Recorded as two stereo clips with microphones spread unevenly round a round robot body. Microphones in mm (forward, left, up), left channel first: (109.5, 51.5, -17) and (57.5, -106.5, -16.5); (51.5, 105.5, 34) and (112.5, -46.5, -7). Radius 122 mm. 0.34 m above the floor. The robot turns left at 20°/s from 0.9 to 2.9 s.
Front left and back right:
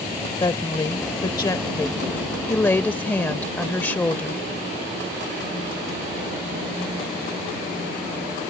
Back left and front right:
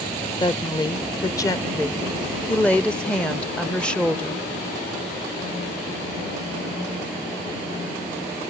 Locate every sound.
0.4 s a woman speaking: 45° left; by 4.4 s 5° left